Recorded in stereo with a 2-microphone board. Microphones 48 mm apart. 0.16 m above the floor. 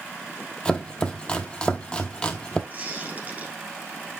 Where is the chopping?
20° left (ahead or behind), 0.9 m.